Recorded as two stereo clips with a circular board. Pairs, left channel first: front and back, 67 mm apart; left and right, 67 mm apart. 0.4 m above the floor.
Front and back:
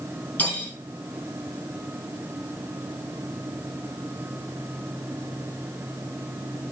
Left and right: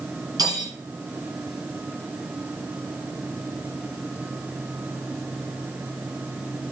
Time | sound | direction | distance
0.4 | cutlery clinking | 60° right | 2.5 m